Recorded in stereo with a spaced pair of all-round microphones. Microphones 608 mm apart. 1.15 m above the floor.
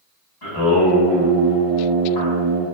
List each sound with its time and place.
0.4 s singing: 40° left (ahead or behind), 1.5 m